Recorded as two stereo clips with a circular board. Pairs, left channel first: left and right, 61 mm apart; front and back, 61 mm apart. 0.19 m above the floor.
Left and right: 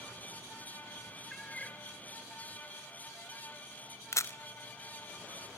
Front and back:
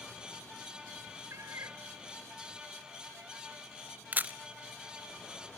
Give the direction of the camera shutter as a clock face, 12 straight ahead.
8 o'clock.